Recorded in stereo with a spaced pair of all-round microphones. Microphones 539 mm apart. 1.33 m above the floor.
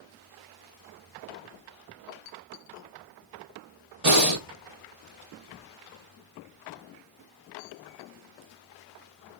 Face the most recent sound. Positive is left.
turn(degrees=-75)  # may be behind; listen again after turning